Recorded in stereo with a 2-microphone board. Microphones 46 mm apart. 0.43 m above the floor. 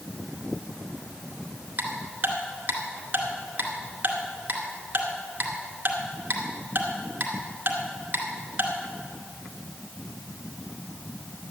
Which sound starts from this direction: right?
Ticking, at 1.8 s.